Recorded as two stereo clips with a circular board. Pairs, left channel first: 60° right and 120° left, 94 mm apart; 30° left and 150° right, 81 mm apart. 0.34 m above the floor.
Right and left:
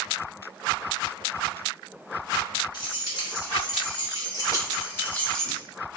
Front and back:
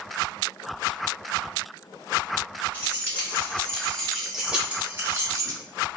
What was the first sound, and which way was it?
Keys jangling, 35° right.